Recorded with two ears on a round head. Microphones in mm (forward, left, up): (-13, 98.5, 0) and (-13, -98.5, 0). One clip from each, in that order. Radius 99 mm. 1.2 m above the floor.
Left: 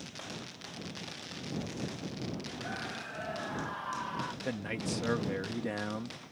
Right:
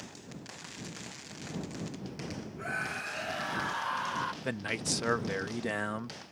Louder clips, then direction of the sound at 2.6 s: Right 7 dB; 75° right (ahead or behind).